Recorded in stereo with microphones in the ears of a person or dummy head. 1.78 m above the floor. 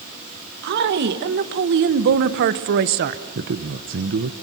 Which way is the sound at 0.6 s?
55° right (ahead or behind).